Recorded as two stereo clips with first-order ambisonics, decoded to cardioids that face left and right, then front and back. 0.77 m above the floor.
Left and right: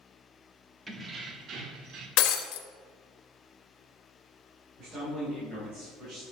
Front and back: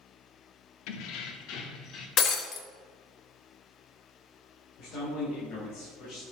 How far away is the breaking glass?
About 1.2 m.